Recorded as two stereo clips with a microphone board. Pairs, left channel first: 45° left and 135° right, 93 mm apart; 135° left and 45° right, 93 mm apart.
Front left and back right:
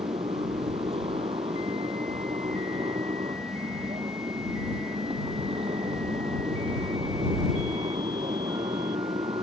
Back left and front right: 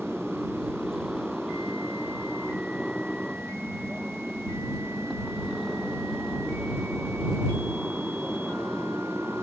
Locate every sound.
0.0 s a motorcycle: 135° right